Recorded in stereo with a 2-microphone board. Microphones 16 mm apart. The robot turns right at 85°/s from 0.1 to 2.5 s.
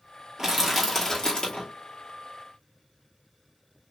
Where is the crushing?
30° right, 2.5 m; by 1.7 s 80° left, 2.5 m.